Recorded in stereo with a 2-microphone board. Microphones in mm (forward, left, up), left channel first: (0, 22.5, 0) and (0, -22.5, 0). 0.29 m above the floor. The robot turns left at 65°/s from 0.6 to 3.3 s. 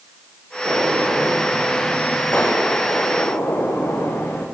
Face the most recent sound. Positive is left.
turn(degrees=100)